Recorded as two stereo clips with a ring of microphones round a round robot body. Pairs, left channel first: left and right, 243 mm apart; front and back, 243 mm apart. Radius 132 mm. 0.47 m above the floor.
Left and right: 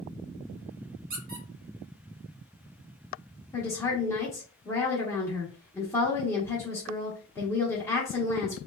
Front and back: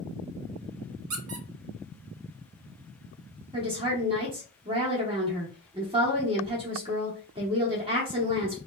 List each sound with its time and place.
1.1 s a squeak: 150° right, 0.7 m
3.5 s a woman speaking: 155° left, 0.8 m